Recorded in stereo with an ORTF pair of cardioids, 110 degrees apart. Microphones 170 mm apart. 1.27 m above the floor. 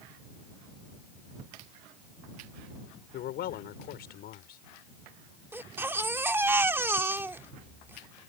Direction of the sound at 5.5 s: 15° right.